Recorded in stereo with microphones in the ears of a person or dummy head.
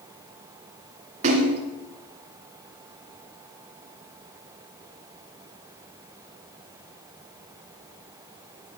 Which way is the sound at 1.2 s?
30° right (ahead or behind).